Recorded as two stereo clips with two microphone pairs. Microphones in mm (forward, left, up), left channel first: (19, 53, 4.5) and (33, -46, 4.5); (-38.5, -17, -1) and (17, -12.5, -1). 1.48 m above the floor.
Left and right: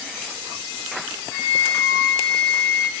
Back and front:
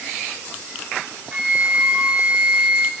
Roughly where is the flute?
Left.